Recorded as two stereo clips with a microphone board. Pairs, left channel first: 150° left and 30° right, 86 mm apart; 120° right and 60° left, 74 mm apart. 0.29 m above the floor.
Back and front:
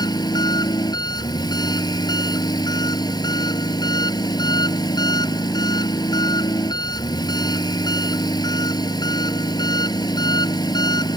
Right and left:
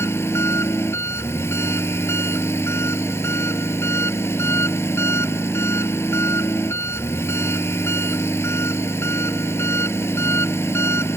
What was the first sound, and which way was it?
An engine running, 175° right.